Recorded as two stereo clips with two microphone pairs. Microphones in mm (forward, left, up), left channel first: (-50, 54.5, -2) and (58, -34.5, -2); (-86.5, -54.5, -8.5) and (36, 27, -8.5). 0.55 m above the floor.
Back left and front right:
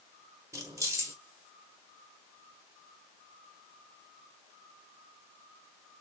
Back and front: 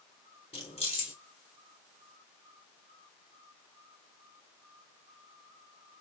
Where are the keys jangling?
105° right, 1.1 m.